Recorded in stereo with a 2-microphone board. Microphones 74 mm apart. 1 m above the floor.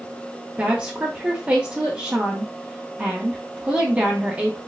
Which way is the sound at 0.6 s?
20° right (ahead or behind).